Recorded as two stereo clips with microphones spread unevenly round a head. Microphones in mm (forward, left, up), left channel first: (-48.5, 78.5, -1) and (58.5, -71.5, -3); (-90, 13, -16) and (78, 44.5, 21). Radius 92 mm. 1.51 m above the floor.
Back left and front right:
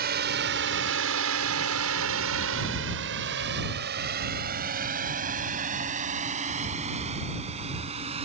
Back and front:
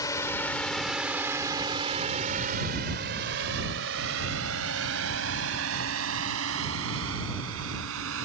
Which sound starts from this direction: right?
A drone, at 0.0 s.